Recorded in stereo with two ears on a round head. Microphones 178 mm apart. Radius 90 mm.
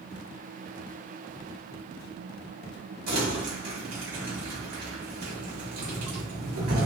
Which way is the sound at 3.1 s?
80° right.